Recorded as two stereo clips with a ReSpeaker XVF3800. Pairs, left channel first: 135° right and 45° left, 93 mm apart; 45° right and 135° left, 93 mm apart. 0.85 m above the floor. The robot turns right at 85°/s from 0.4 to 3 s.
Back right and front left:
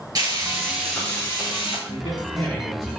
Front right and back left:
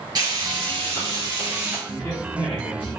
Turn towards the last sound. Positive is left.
turn(degrees=-30)